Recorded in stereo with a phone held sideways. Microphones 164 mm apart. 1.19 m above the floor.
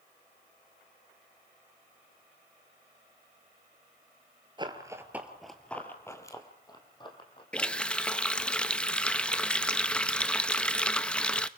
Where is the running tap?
5° left (ahead or behind), 0.6 m.